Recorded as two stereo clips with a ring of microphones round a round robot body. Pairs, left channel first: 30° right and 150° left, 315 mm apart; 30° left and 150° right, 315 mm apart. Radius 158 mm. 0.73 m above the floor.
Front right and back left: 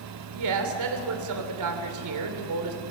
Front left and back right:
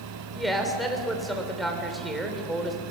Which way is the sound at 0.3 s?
120° left.